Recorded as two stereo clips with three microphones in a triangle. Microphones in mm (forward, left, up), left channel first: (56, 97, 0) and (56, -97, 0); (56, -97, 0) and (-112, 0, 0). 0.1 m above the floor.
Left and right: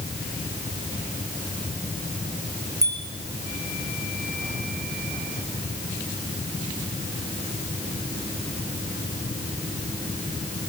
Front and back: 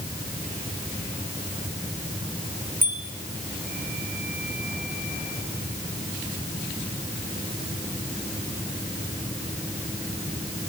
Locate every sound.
2.8 s a bicycle bell: 165° right, 5.5 m